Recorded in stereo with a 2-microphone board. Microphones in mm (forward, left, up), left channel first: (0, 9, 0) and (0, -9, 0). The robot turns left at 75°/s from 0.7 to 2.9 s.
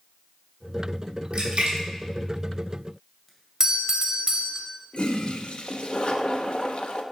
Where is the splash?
65° right (ahead or behind), 2.5 m; by 3.3 s 5° left (ahead or behind), 2.5 m.